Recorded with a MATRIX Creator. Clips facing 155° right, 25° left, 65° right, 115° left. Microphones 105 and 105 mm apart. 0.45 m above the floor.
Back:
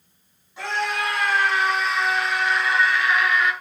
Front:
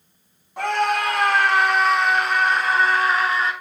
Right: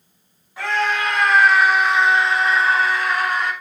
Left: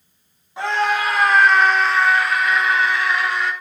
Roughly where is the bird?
I don't hear a bird.